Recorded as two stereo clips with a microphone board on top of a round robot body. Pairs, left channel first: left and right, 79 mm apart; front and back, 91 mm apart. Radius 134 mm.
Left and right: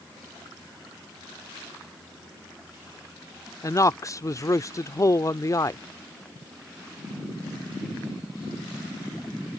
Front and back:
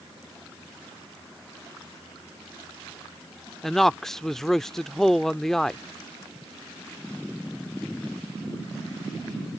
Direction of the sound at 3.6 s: 85° left.